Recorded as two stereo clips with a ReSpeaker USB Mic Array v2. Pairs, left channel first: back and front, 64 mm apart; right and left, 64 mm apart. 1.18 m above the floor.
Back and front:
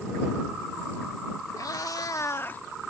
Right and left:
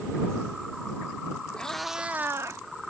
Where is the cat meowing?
165° right; by 2.6 s 115° left.